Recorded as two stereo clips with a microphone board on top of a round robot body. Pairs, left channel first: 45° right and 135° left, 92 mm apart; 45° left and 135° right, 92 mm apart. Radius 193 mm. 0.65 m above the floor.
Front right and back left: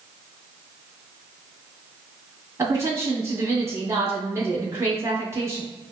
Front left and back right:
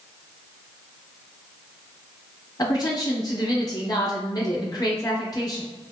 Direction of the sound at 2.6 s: 80° left.